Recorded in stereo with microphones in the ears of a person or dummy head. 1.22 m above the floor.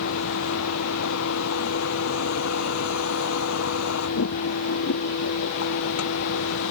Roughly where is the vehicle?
Left.